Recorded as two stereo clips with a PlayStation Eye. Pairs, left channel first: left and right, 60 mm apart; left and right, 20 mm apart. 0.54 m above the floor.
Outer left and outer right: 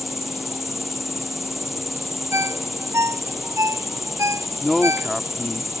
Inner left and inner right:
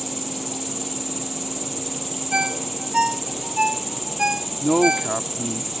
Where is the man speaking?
5° left (ahead or behind).